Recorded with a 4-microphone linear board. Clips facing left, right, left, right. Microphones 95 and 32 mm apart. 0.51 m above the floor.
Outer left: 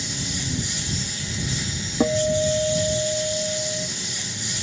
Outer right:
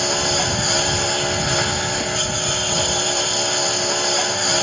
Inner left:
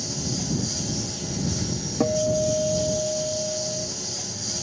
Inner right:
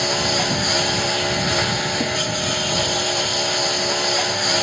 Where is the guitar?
35° left (ahead or behind).